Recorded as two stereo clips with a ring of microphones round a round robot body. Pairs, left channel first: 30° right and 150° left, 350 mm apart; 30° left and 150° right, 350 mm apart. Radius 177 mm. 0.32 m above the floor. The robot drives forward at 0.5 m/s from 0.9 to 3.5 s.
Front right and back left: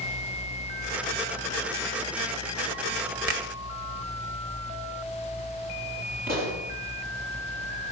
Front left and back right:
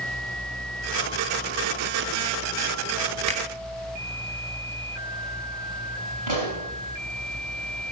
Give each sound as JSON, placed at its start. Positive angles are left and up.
{"t": 3.3, "sound": "a finger snap", "azimuth_deg": 140, "distance_m": 1.6}
{"t": 6.3, "sound": "a pop", "azimuth_deg": -145, "distance_m": 6.5}